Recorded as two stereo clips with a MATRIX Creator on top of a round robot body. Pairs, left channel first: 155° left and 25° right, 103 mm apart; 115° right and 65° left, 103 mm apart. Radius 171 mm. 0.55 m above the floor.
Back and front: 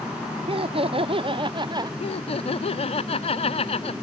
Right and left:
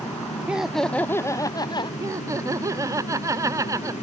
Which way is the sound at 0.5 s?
10° right.